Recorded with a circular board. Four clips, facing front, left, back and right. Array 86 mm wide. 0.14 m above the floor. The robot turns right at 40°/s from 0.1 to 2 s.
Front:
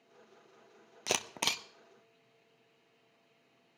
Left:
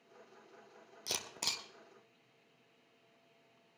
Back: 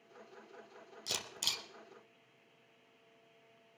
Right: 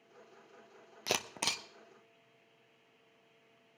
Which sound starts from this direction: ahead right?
A camera shutter, at 1.1 s.